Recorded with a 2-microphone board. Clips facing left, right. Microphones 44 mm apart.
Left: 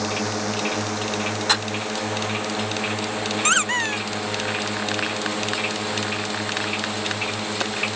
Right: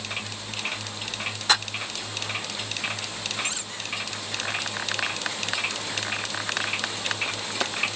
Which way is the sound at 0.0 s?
75° left (ahead or behind).